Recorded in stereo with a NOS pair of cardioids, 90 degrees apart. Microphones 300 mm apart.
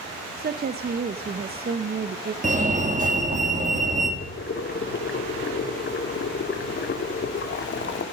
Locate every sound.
0.4 s a woman speaking: 30° right, 0.8 m
2.4 s a fire alarm: 25° right, 3.5 m
4.2 s boiling: 40° left, 2.5 m